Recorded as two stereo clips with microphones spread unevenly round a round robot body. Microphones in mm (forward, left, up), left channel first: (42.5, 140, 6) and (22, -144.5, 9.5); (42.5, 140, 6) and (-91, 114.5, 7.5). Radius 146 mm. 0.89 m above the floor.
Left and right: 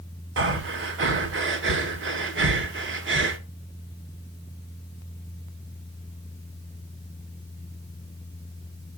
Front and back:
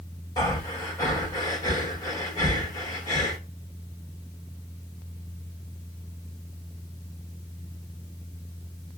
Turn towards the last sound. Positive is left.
turn(degrees=-55)